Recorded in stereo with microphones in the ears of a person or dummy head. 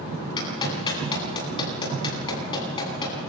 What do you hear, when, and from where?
0.4 s a clap: 25° left (ahead or behind), 9.5 m